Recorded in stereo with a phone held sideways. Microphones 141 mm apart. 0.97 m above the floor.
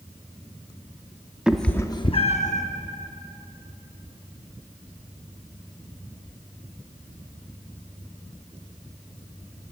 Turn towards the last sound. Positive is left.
turn(degrees=60)  # may be behind; listen again after turning